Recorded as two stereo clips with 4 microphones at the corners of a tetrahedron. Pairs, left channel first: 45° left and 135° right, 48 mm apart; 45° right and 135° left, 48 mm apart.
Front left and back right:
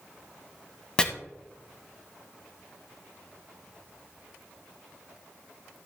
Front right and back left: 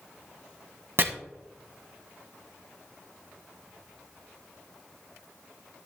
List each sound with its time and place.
1.0 s chopping: 115° left, 1.5 m